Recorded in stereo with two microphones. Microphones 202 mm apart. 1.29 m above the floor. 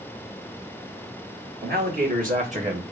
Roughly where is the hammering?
No hammering in this recording.